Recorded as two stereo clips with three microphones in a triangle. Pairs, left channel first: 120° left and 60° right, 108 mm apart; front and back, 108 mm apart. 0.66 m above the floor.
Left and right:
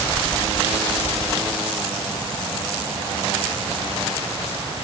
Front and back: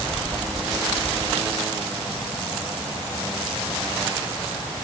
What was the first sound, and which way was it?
Only background noise.